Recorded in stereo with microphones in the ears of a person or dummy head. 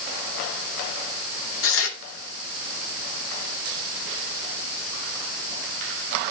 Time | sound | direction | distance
1.6 | tearing paper | 75° left (ahead or behind) | 2.5 m